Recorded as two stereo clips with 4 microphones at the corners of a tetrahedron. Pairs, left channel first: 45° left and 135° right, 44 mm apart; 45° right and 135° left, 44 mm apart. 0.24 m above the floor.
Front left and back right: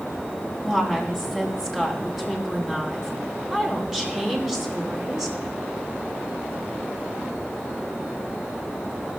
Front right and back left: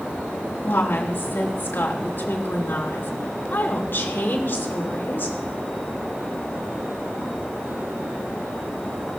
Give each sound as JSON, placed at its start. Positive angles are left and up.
{"t": 0.6, "sound": "a woman speaking", "azimuth_deg": -60, "distance_m": 2.5}